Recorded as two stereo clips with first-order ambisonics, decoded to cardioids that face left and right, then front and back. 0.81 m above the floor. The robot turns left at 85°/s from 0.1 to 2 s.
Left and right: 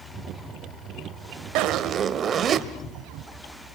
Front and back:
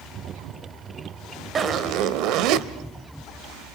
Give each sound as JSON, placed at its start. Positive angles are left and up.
{"t": 1.6, "sound": "a zipper", "azimuth_deg": -110, "distance_m": 1.1}